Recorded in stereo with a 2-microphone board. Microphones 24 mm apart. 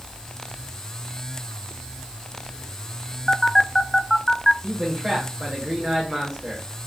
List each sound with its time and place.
3.3 s a phone buzzing: 10° left (ahead or behind), 0.6 m
4.6 s a man speaking: 20° right (ahead or behind), 7 m